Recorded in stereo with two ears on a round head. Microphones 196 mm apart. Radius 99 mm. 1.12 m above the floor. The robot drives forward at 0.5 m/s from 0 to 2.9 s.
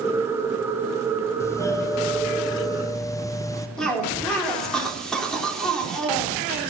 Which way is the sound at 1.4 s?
10° left (ahead or behind).